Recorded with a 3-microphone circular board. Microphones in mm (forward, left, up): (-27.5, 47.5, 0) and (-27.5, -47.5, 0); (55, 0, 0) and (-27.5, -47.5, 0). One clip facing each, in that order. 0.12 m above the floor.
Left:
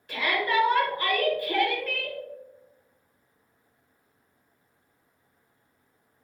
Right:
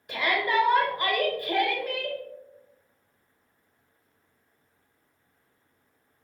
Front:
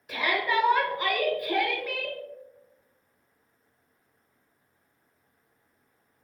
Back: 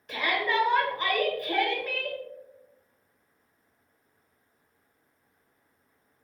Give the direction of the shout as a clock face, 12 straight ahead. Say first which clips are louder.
Even, front 1 dB; 2 o'clock.